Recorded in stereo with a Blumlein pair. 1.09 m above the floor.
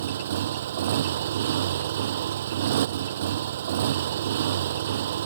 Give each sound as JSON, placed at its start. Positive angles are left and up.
{"t": 0.0, "sound": "a motorcycle", "azimuth_deg": -60}